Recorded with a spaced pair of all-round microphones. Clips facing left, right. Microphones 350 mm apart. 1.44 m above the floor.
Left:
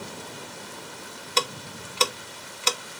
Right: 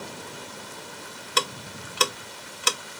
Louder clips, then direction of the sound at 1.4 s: Left 1 dB; 20° right (ahead or behind).